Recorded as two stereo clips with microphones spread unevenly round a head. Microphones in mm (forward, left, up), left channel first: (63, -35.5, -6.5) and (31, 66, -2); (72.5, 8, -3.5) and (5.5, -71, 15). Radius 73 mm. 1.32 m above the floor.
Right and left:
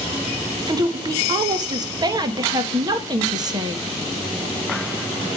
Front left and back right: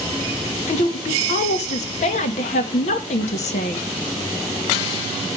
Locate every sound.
0.7 s a woman speaking: 60° left, 1.4 m